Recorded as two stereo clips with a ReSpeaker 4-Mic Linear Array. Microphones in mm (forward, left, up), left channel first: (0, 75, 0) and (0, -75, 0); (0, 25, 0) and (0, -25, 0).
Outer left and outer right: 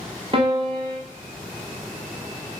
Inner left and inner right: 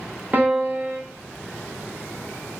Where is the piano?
35° right (ahead or behind), 0.9 m.